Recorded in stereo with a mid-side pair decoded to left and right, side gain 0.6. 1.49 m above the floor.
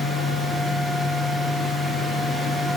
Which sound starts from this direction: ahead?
A fan, at 0.0 s.